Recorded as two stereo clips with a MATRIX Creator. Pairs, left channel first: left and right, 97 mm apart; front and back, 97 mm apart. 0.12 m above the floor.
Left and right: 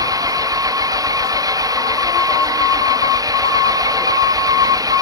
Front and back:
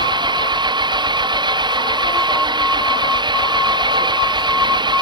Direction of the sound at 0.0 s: 140° right.